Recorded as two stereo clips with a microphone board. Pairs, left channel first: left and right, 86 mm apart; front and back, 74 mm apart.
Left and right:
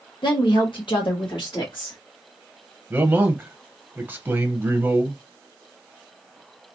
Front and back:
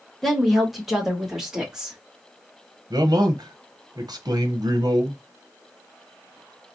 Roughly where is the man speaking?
Behind right.